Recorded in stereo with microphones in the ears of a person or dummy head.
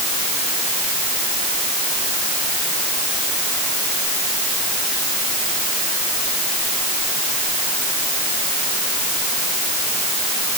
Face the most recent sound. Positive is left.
No sound to turn to.